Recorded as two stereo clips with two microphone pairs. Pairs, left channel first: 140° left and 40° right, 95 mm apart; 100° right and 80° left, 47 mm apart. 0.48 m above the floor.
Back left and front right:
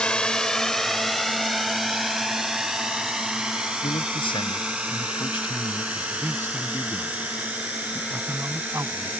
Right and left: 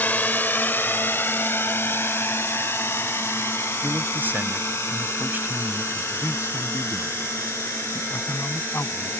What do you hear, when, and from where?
0.0 s a drone: 140° right; by 9.2 s 110° right
3.8 s a man speaking: 120° left
5.9 s a man speaking: 100° right